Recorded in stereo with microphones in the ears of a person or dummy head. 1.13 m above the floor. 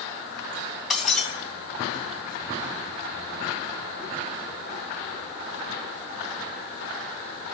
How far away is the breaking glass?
About 3 m.